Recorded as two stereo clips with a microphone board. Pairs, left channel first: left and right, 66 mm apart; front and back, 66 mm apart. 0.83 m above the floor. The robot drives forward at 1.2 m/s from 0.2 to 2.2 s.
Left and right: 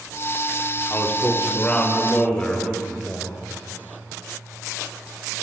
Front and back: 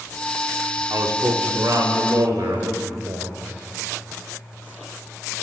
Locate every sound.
0.9 s a man speaking: 145° left, 1.6 m; by 3.4 s 160° left, 3 m